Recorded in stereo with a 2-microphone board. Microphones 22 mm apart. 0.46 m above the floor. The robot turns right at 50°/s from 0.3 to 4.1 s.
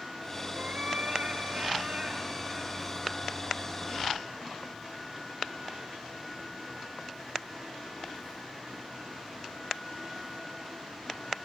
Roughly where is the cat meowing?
Behind right.